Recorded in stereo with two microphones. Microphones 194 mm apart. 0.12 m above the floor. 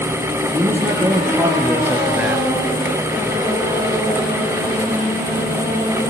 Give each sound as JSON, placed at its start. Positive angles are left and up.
{"t": 0.5, "sound": "a man speaking", "side_deg": -10, "distance_m": 4.0}